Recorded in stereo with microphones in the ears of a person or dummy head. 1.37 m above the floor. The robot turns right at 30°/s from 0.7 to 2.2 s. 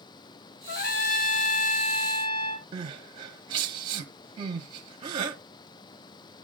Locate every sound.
0.7 s a trumpet: 105° left, 0.7 m; by 2.6 s 150° left, 0.7 m
2.7 s crying: 30° right (ahead or behind), 1.0 m